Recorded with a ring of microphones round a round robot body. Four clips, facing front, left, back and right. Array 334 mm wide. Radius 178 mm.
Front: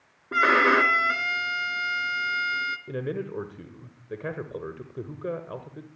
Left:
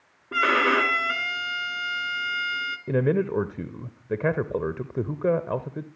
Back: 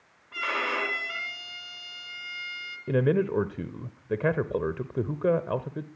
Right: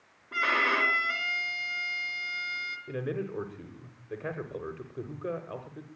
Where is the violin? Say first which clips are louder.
Left 7 dB, front 11 dB; 35° left, 2.5 m.